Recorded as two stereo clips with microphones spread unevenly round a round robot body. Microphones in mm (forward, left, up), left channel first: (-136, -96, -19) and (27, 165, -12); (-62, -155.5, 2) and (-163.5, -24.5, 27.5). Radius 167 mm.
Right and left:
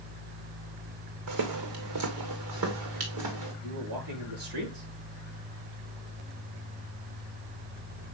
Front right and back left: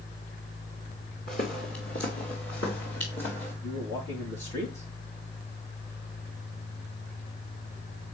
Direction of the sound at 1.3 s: 15° left.